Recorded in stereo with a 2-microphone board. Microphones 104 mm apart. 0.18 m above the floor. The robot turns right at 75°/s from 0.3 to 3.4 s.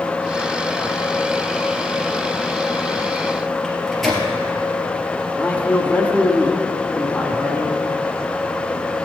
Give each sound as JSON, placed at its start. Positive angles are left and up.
{"t": 3.6, "sound": "a microwave", "side_deg": 5, "distance_m": 2.5}
{"t": 5.4, "sound": "a man speaking", "side_deg": 15, "distance_m": 1.6}